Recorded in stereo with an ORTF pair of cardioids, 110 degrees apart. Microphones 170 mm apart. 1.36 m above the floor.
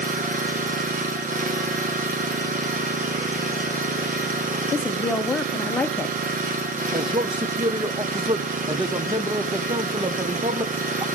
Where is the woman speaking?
5° left, 0.8 m.